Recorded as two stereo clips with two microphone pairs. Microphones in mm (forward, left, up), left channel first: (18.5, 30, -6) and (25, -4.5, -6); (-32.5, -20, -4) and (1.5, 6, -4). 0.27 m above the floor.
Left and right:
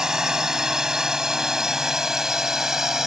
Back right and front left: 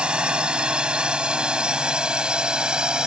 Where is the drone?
15° right; by 3.1 s 10° right.